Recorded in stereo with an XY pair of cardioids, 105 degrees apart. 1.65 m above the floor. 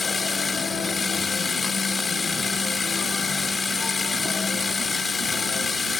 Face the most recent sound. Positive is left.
turn(degrees=25)